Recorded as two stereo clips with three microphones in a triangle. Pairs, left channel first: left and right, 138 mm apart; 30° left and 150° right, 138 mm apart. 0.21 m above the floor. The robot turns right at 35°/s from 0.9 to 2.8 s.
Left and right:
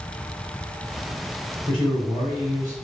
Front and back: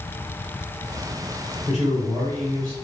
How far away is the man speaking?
About 1.9 m.